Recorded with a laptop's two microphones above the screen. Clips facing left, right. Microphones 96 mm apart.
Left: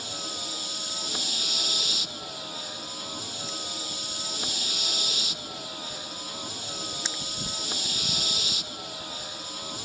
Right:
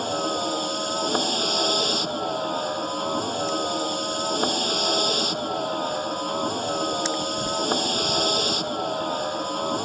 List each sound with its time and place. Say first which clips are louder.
0.0 s a vehicle: right 14 dB; 50° right (ahead or behind)